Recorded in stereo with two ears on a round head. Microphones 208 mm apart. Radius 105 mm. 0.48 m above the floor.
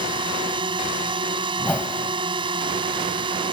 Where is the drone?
20° right (ahead or behind).